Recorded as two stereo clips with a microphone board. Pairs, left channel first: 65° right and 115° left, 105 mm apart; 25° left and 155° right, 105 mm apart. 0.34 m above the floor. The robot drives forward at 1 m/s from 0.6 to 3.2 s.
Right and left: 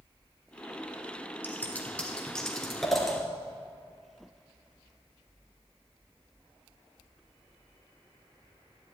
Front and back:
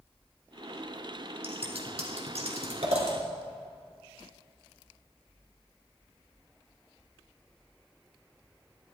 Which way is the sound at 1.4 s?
135° right.